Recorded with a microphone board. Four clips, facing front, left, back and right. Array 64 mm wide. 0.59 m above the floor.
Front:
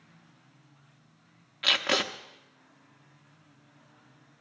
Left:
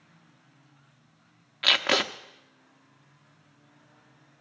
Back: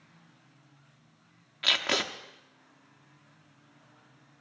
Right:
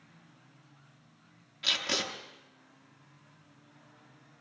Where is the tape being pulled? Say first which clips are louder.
Left 9 dB, front 2 dB; 90° left, 0.7 m.